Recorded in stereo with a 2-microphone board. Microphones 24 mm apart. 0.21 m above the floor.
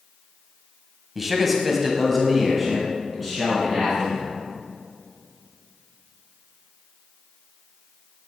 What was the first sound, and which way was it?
A man speaking, 10° right (ahead or behind).